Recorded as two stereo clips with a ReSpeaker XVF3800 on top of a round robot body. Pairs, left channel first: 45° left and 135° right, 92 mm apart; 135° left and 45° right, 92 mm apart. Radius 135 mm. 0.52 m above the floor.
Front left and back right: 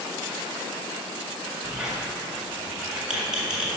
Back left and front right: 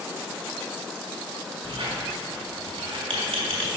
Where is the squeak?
55° right, 1.9 m.